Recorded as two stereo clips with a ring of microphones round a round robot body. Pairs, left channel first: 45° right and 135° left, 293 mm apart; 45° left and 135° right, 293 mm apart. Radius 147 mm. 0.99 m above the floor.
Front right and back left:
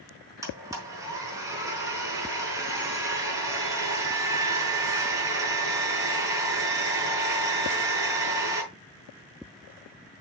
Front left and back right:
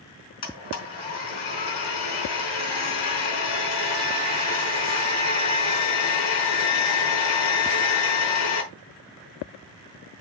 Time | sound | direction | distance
0.4 | a blender | 55° left | 5 m